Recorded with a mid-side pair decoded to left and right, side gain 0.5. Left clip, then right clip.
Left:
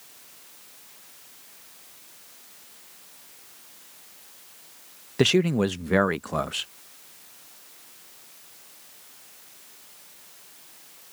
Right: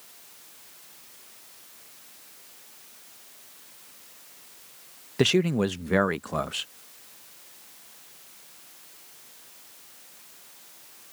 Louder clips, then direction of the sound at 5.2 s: Left 2 dB; 5° left.